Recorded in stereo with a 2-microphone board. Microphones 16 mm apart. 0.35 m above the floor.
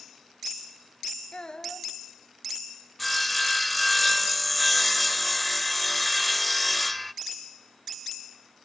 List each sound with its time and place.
1.3 s a child speaking: 60° left (ahead or behind), 1.1 m
3.0 s sawing: 10° left (ahead or behind), 0.5 m